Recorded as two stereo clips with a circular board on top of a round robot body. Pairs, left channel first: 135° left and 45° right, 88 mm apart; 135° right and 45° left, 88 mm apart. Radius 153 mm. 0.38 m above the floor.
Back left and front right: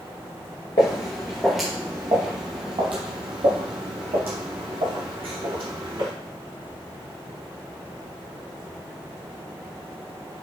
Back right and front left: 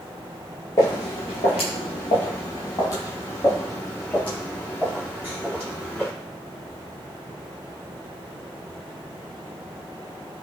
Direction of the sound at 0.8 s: 175° left.